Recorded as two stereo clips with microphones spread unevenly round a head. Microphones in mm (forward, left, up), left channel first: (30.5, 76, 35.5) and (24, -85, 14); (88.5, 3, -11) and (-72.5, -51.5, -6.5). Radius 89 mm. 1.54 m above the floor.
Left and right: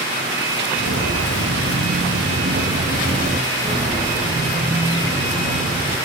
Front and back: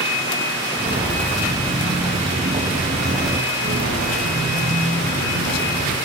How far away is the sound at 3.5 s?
About 5.5 m.